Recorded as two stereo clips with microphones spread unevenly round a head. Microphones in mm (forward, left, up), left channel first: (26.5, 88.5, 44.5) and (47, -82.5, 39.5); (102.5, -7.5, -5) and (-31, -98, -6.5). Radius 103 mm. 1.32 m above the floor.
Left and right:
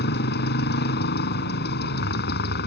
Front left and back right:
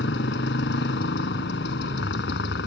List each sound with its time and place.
0.0 s a motorcycle: 70° left